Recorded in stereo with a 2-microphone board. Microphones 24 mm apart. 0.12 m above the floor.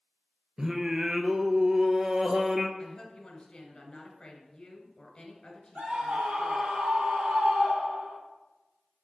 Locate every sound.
0.6 s singing: 30° right (ahead or behind), 0.7 m
2.8 s a woman speaking: 25° left (ahead or behind), 1.6 m
5.8 s a scream: 65° right (ahead or behind), 3 m